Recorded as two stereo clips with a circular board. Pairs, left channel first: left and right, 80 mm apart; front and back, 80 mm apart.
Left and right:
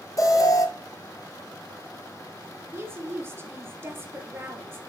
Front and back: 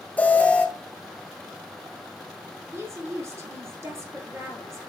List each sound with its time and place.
0.2 s an alarm: 65° left, 1.2 m
2.7 s a woman speaking: 140° right, 1.8 m